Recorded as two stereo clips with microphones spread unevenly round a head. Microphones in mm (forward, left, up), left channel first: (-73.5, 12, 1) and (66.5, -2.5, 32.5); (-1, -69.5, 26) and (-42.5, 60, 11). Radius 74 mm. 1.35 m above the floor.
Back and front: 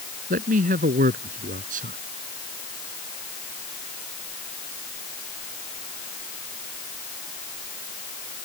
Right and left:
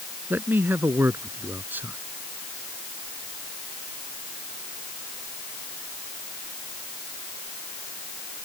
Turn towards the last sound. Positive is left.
turn(degrees=30)